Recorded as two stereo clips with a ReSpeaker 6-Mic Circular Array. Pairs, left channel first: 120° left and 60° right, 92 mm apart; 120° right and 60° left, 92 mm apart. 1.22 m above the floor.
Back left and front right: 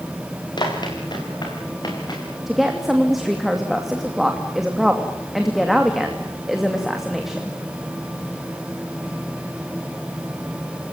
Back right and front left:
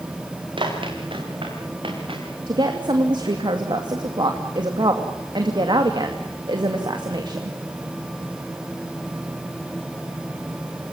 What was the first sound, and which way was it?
Running footsteps, 80° left.